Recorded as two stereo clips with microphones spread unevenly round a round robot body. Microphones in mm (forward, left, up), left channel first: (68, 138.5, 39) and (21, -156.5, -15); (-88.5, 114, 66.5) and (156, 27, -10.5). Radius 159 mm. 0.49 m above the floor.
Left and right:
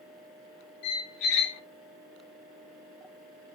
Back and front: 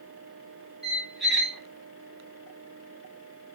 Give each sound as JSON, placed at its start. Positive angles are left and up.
{"t": 0.8, "sound": "a squeak", "azimuth_deg": 75, "distance_m": 0.6}